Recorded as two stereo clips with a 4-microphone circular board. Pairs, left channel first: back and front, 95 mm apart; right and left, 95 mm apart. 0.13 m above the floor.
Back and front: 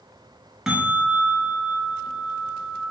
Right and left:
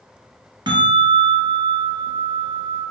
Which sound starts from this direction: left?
A bell, at 0.7 s.